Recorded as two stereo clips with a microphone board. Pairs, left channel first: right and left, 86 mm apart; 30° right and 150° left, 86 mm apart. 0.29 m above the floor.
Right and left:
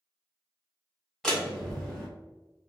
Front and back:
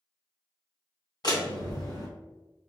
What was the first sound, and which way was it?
A door slam, 5° right.